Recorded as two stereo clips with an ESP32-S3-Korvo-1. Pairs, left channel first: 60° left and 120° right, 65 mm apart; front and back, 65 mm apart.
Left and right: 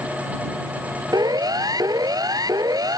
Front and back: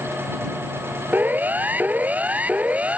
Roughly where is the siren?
Behind right.